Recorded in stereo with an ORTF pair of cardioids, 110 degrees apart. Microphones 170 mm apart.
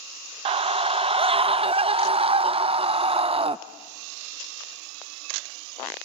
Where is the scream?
40° right, 0.7 m.